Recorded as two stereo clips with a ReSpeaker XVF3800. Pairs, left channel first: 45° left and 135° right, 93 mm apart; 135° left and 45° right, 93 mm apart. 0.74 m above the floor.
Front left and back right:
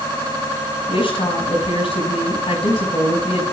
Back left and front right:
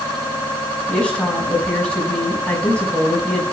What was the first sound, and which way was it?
A woman speaking, 55° left.